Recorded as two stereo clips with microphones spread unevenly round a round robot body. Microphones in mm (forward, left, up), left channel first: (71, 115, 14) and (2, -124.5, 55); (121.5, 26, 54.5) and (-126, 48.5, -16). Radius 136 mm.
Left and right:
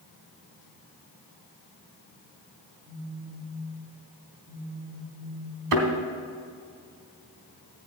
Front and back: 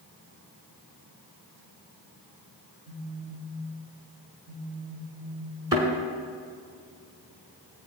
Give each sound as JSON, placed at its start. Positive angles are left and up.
{"t": 2.9, "sound": "a phone buzzing", "azimuth_deg": -155, "distance_m": 4.0}
{"t": 5.7, "sound": "a thud", "azimuth_deg": -105, "distance_m": 1.4}